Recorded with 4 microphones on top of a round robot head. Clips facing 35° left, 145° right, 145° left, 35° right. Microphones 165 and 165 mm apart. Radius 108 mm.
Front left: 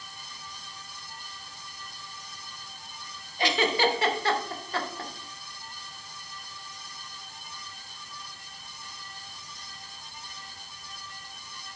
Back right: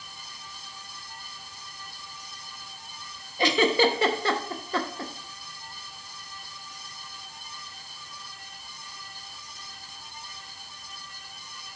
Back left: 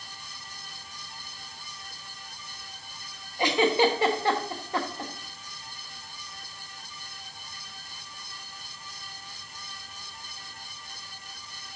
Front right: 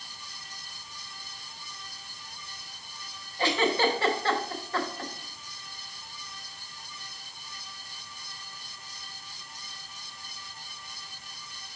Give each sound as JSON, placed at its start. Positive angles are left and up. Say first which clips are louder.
{"t": 3.4, "sound": "a giggle", "louder": "back right 4 dB, back left 3 dB", "azimuth_deg": -140, "distance_m": 1.0}